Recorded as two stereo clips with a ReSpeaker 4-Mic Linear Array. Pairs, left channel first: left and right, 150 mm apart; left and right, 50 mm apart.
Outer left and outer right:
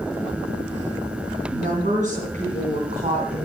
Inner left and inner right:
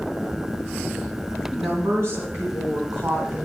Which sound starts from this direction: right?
A woman speaking, at 1.5 s.